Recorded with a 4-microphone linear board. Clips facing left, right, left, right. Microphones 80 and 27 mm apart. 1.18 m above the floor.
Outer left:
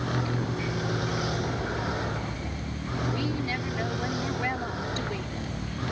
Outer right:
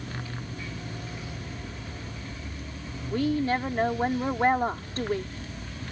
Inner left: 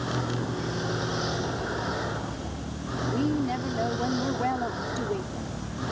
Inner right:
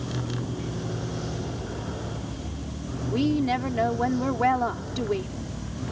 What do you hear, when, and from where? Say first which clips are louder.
0.0 s a vehicle: outer left 9 dB, inner left 2 dB; 80° left
3.1 s a woman speaking: outer right 10 dB, inner right 4 dB; 45° right (ahead or behind)